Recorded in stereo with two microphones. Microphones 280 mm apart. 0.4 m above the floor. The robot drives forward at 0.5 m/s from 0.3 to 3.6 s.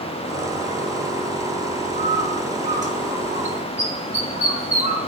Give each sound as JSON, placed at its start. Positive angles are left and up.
{"t": 1.9, "sound": "a bird", "side_deg": -25, "distance_m": 1.1}